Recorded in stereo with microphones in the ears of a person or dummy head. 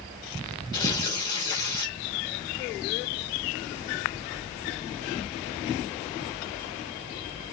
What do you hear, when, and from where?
0.7 s tearing paper: 20° left (ahead or behind), 1.2 m